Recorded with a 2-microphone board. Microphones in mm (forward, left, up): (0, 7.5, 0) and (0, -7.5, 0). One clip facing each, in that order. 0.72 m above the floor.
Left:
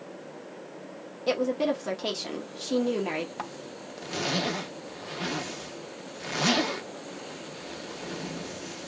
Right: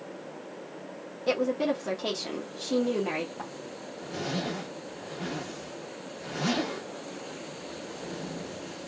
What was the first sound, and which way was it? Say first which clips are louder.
A woman speaking: left 1 dB; 15° left (ahead or behind).